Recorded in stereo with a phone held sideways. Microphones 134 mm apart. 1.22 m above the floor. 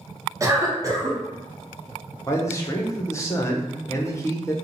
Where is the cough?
25° right (ahead or behind), 0.7 m.